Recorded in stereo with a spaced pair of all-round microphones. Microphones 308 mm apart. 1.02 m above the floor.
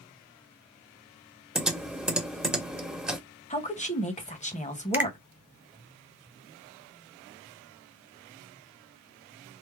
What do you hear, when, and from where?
1.6 s typing on a keyboard: 5° right (ahead or behind), 0.8 m
3.5 s a woman speaking: 20° left (ahead or behind), 0.8 m
4.9 s a finger snap: 5° right (ahead or behind), 0.5 m